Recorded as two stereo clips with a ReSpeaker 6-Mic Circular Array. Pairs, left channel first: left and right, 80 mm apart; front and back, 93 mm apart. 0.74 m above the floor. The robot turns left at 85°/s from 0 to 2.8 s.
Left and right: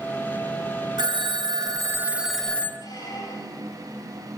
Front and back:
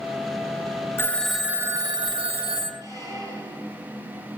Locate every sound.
1.0 s a phone ringing: 65° right, 0.9 m; by 2.7 s 150° left, 0.9 m
2.8 s a squeak: 130° left, 4.5 m